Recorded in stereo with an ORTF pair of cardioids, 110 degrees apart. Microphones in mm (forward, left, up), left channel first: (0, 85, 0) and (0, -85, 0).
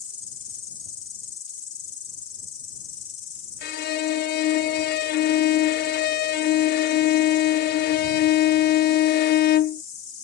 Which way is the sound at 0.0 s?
45° left.